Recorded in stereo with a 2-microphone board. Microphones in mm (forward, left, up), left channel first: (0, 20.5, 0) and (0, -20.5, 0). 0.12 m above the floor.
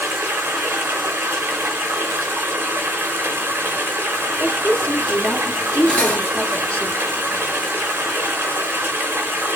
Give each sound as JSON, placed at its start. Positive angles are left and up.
{"t": 0.0, "sound": "running water", "side_deg": -65, "distance_m": 1.1}
{"t": 4.4, "sound": "a woman speaking", "side_deg": 25, "distance_m": 1.2}
{"t": 5.9, "sound": "cutlery clinking", "side_deg": 25, "distance_m": 1.5}